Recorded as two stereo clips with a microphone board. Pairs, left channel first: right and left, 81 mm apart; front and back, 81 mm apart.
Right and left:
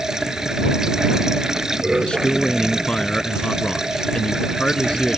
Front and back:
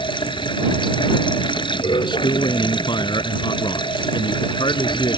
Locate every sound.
0.0 s running water: 5° left
2.0 s a man speaking: 10° right